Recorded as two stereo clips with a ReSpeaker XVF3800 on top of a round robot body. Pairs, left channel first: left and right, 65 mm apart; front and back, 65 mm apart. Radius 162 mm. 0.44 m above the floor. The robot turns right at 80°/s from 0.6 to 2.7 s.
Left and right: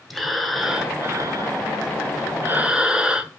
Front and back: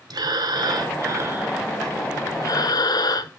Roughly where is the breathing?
Behind.